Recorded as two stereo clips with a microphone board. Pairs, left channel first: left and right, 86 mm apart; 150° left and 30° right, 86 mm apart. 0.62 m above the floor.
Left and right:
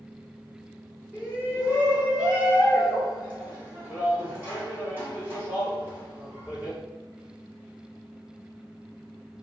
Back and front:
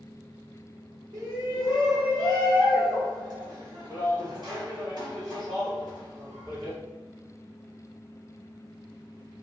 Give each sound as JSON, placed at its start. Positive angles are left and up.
{"t": 1.1, "sound": "a shout", "azimuth_deg": -30, "distance_m": 1.6}